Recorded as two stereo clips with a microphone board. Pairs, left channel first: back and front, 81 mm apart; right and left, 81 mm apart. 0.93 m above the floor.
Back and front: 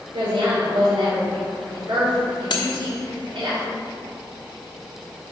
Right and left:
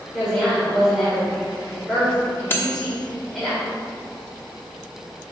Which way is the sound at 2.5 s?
155° right.